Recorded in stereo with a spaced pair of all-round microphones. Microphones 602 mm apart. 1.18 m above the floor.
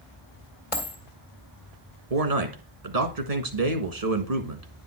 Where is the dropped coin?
60° left (ahead or behind), 2.0 m.